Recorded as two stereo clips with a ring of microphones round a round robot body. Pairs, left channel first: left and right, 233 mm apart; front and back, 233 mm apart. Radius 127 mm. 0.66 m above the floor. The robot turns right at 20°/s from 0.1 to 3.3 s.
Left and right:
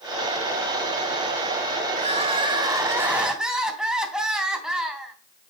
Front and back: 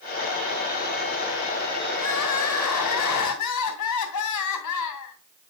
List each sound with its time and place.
1.9 s crying: 30° right, 3 m; by 5.2 s 5° right, 3 m